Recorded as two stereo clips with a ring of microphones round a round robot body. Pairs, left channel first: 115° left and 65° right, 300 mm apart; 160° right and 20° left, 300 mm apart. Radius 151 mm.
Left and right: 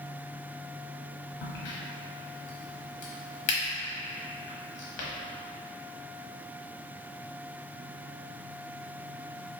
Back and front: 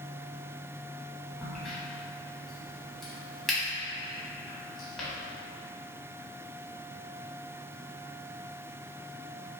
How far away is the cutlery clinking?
I don't hear cutlery clinking.